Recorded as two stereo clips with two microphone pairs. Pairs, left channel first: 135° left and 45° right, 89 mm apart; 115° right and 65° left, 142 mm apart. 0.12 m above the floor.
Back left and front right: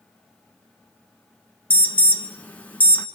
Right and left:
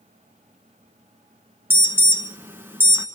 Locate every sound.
1.7 s an alarm: 110° left, 2.5 m